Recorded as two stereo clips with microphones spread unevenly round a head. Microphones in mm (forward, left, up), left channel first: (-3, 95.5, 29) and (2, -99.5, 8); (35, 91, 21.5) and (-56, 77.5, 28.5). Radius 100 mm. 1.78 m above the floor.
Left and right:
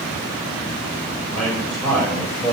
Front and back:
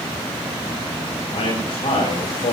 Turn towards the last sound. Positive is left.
turn(degrees=5)